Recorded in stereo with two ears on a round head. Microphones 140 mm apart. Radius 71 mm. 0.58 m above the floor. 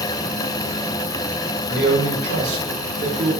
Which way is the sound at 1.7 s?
80° right.